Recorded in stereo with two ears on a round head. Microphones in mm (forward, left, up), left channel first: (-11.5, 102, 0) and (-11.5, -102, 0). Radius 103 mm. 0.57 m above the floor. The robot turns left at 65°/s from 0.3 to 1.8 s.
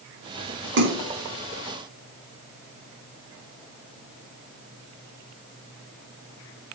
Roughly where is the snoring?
No snoring in this recording.